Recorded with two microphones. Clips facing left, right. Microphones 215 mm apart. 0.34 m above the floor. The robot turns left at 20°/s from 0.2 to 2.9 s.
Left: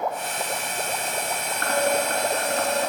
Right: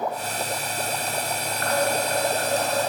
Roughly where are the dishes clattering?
Left.